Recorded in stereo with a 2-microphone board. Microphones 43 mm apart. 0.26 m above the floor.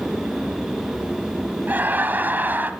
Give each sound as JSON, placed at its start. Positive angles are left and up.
{"t": 1.7, "sound": "laughter", "side_deg": -45, "distance_m": 1.5}